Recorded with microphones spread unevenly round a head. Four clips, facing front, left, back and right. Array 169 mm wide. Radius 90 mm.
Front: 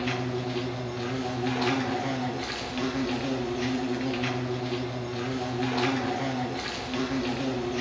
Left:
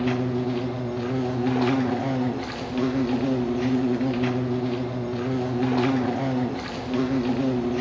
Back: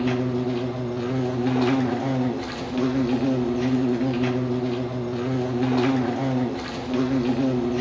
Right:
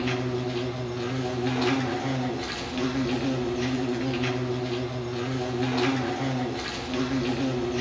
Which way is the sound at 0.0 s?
140° left.